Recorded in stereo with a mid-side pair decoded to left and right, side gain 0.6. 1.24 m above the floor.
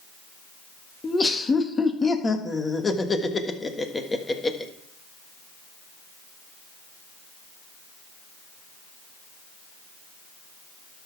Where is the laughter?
20° left, 1.5 m.